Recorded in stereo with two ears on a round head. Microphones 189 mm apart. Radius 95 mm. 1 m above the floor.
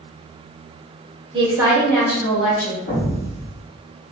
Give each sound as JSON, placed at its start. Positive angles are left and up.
{"t": 1.3, "sound": "a woman speaking", "side_deg": -25, "distance_m": 0.8}
{"t": 2.9, "sound": "an explosion", "side_deg": 45, "distance_m": 1.4}